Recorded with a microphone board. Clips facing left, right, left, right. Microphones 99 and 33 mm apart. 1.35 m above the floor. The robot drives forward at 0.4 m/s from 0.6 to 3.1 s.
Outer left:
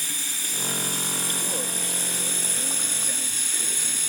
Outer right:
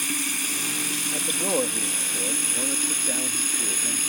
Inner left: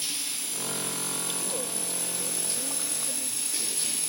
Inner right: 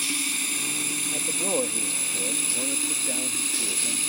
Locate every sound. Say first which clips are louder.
0.0 s running water: outer right 7 dB, inner right 7 dB; 65° right (ahead or behind); by 4.1 s 55° right (ahead or behind)
1.1 s a man speaking: outer right 6 dB, inner right 7 dB; 45° right (ahead or behind); by 4.0 s 35° right (ahead or behind)